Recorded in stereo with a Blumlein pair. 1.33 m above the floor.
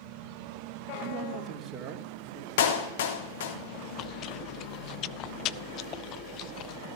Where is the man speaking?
35° right, 2.5 m; by 2.5 s 15° right, 3.5 m.